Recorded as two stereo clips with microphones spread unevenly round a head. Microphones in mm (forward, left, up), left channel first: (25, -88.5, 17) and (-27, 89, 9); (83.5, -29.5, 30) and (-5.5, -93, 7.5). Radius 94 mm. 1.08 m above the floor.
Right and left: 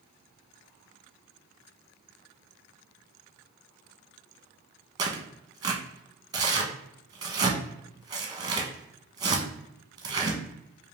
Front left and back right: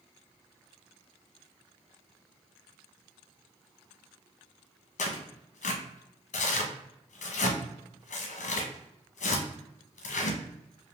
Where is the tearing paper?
40° left, 1.0 m.